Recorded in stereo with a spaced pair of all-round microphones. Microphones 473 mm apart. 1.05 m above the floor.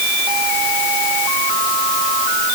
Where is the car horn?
No car horn in this recording.